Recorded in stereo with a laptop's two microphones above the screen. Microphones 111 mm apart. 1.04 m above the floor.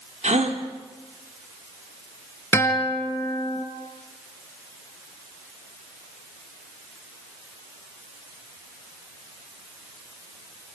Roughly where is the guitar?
Left.